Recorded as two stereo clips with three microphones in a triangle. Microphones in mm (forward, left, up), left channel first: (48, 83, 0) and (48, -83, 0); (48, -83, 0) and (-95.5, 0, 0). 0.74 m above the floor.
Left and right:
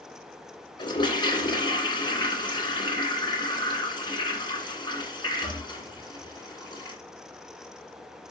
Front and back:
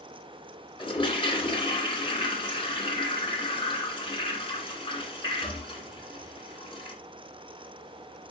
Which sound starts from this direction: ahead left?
A toilet flushing, at 0.8 s.